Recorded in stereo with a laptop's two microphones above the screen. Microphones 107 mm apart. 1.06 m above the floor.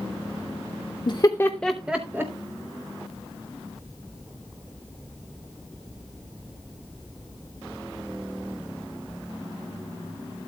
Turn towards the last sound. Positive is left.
turn(degrees=-25)  # may be behind; listen again after turning